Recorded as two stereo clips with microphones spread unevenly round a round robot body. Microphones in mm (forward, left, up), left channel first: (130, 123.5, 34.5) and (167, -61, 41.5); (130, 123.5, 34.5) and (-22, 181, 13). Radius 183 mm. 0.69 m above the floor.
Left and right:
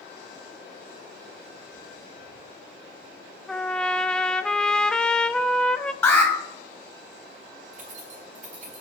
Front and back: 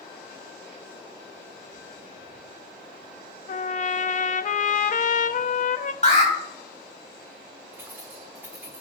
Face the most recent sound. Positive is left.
turn(degrees=-125)